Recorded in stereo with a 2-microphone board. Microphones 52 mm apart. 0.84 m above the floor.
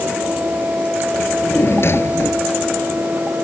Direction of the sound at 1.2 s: 55° left (ahead or behind).